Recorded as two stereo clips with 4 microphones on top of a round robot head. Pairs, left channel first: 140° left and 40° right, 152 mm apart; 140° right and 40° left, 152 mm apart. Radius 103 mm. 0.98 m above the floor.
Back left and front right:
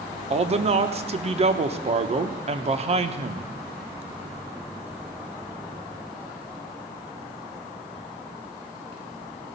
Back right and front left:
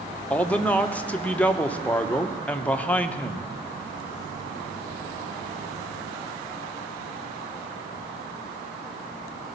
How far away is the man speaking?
About 1.0 m.